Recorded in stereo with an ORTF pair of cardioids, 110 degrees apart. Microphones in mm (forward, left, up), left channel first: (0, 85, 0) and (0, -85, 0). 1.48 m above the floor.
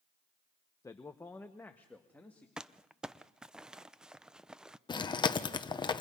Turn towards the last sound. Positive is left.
turn(degrees=25)